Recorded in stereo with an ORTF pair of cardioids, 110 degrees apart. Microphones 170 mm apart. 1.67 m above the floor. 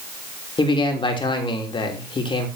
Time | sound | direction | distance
0.6 | a man speaking | 30° left | 3 m